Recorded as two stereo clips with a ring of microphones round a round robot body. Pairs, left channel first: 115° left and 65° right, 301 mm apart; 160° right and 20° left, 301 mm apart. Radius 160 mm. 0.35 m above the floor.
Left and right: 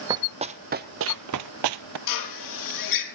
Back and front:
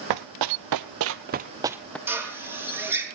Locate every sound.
0.1 s running footsteps: 10° left, 1.0 m; by 2.0 s 70° right, 0.7 m
2.1 s a drill: 105° left, 3.5 m